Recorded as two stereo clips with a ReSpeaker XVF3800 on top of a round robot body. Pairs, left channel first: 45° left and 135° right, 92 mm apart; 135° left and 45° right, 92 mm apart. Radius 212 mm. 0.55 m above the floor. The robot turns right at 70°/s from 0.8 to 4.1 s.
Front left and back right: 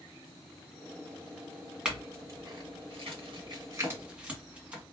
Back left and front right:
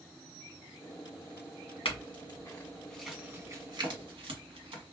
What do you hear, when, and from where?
1.9 s a clink: 145° left, 1.7 m; by 4.8 s 60° right, 1.7 m